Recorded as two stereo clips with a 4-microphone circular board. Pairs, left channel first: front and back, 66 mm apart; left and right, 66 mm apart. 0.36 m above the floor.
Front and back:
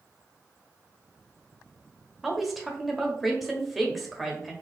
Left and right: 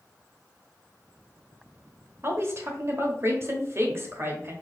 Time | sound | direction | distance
2.2 | a woman speaking | 95° right | 1.0 m